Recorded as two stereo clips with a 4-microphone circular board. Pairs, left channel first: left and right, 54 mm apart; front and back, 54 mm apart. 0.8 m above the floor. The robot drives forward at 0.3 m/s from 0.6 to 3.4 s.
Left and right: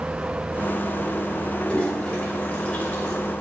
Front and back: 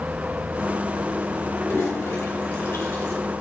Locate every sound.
1.6 s a toilet flushing: 25° left, 3.5 m; by 3.1 s 30° left, 3 m